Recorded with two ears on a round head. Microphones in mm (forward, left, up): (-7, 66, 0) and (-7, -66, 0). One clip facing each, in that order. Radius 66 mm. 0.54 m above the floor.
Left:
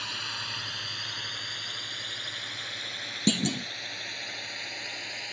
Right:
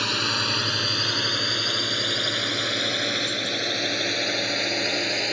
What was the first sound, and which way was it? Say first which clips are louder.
A drone: right 13 dB; 80° right.